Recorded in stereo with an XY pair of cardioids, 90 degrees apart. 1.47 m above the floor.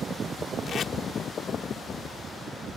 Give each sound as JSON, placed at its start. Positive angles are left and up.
{"t": 0.7, "sound": "tape being pulled", "azimuth_deg": 55}